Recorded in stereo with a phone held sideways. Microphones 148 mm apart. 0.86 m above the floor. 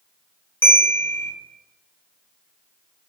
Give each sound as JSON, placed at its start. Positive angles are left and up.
{"t": 0.6, "sound": "a bell", "side_deg": 15, "distance_m": 1.5}